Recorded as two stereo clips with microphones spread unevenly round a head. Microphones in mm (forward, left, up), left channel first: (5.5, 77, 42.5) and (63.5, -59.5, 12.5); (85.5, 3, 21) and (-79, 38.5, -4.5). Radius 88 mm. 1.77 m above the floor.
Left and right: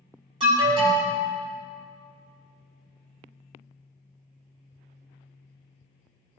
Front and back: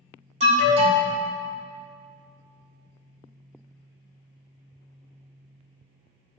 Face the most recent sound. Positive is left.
turn(degrees=-135)